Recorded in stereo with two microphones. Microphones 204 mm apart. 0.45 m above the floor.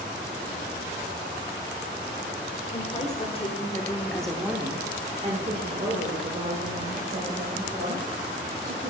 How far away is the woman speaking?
About 1.4 m.